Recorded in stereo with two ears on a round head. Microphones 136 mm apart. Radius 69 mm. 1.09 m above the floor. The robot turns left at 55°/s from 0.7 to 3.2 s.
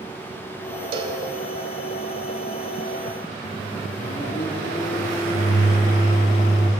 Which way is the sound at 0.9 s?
35° right (ahead or behind).